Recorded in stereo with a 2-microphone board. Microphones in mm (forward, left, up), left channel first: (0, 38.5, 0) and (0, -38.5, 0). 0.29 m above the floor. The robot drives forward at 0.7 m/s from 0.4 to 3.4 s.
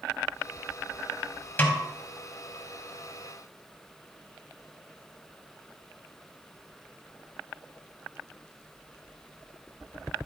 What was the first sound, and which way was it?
A snare drum, 25° left (ahead or behind).